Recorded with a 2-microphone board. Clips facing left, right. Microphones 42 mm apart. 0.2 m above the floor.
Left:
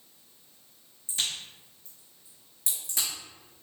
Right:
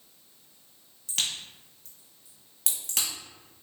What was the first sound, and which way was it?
A crack, 75° right (ahead or behind).